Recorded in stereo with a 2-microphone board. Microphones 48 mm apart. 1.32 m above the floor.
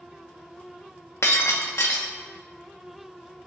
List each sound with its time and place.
1.2 s breaking glass: 70° left (ahead or behind), 1.3 m